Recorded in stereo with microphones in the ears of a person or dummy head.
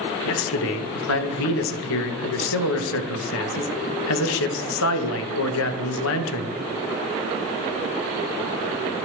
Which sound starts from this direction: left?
A man speaking, at 0.2 s.